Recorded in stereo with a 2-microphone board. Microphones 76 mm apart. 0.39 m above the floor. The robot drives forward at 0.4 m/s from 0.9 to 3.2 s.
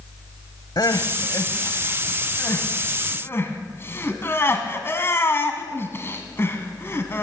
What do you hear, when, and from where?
0.8 s crying: 55° left (ahead or behind), 1.0 m; by 7.2 s 30° left (ahead or behind), 1.6 m